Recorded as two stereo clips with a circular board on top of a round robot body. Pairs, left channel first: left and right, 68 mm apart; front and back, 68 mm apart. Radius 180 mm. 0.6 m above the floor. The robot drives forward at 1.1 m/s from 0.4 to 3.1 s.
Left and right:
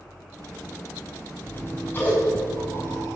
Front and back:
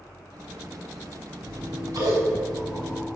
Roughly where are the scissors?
Behind left.